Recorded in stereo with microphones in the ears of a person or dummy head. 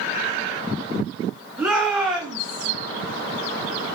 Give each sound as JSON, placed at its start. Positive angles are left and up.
{"t": 1.6, "sound": "a shout", "side_deg": 0, "distance_m": 8.0}